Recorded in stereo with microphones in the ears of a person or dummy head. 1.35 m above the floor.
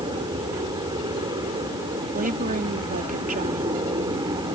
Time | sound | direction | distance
0.0 | an aircraft | 25° right (ahead or behind) | ?
2.1 | a woman speaking | 45° right (ahead or behind) | ?